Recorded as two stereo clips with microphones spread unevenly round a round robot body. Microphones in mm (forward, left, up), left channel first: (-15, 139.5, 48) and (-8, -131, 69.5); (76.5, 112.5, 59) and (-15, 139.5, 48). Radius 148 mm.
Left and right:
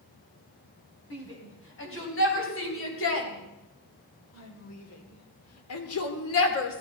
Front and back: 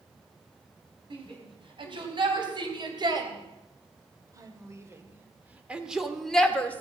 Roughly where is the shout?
Behind left.